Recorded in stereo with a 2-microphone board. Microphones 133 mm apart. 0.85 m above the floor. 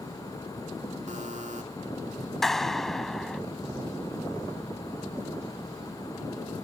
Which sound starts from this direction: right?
A buzzer, at 1.1 s.